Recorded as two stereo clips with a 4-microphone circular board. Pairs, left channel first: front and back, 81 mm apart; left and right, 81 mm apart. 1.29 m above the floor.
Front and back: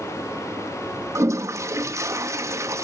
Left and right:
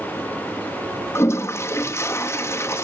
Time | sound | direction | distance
1.1 | a toilet flushing | 140° left | 0.9 m